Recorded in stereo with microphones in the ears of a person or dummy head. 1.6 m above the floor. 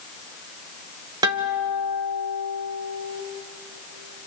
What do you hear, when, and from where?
1.2 s a guitar: 20° right (ahead or behind), 1.4 m